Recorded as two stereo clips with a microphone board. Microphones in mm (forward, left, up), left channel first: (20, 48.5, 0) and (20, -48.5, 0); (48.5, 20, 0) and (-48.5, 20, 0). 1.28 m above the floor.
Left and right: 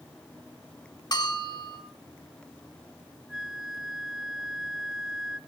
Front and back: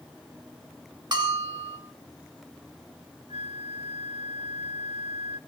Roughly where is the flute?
Behind.